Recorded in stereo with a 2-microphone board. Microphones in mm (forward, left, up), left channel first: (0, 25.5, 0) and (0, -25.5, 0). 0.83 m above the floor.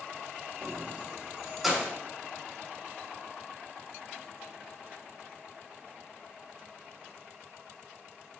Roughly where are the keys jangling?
Right.